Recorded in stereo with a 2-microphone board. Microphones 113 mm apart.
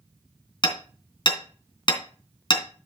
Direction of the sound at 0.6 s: 45° left (ahead or behind).